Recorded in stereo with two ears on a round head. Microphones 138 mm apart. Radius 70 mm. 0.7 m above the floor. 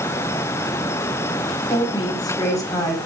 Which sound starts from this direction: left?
A woman speaking, at 1.7 s.